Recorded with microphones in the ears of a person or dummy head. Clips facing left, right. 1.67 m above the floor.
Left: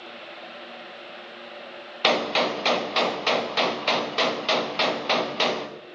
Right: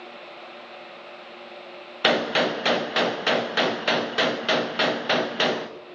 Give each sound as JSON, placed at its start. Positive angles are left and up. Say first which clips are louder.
{"t": 2.0, "sound": "a gunshot", "louder": "right 1 dB", "side_deg": -10, "distance_m": 0.5}